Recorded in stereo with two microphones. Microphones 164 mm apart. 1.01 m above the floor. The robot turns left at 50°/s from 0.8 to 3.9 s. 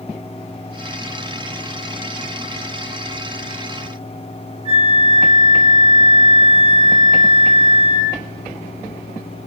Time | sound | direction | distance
4.7 | a flute | 40° right (ahead or behind) | 0.8 m